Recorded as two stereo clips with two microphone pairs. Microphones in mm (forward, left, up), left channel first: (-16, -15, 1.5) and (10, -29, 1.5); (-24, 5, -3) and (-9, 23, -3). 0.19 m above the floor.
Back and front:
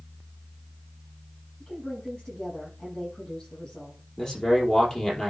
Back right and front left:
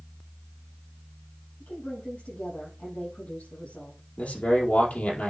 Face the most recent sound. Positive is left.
turn(degrees=-145)